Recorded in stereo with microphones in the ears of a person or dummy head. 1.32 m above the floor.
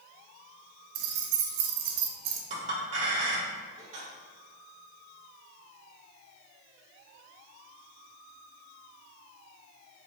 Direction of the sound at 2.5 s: 45° right (ahead or behind).